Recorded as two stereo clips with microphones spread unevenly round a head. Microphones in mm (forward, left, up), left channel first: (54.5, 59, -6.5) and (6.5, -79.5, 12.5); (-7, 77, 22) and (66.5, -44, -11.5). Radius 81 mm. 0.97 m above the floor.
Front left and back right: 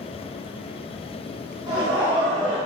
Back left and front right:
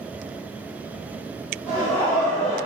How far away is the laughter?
About 1.3 m.